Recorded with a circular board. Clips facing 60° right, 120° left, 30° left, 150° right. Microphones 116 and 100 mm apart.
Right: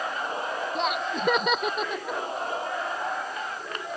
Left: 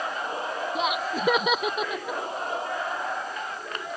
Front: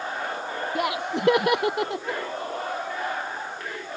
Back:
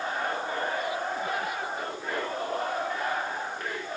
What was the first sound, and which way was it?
Laughter, 35° left.